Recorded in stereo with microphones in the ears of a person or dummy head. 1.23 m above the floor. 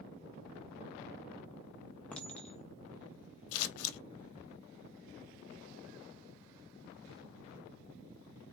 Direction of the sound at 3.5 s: 80° left.